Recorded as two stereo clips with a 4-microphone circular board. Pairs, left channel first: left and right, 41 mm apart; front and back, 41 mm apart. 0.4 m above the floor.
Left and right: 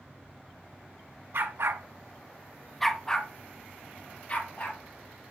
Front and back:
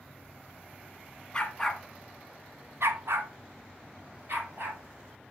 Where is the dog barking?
70° right, 1.7 m; by 4.8 s 145° left, 4 m.